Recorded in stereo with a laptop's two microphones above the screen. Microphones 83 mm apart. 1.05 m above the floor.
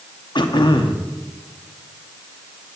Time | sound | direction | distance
0.3 | throat clearing | 65° left (ahead or behind) | 1.0 m